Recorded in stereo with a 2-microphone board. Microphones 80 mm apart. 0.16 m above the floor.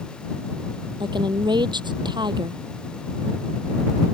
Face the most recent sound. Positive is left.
turn(degrees=-75)  # may be behind; listen again after turning